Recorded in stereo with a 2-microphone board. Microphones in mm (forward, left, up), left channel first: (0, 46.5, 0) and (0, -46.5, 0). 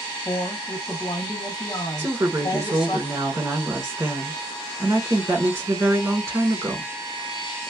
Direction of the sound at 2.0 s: 25° right (ahead or behind).